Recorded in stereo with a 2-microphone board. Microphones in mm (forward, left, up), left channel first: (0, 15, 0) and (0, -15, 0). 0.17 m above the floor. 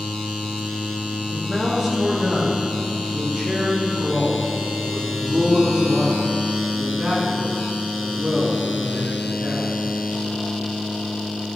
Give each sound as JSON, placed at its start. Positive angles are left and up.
{"t": 1.3, "sound": "a man speaking", "side_deg": 5, "distance_m": 4.5}